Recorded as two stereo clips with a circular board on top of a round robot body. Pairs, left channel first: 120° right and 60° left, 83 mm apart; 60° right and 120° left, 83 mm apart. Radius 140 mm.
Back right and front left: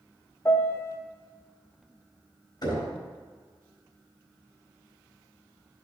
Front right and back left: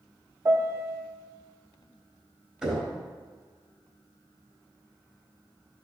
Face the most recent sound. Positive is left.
turn(degrees=-160)